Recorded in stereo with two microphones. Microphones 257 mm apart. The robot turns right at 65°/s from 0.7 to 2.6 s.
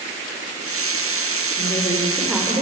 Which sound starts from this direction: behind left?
A woman speaking, at 1.6 s.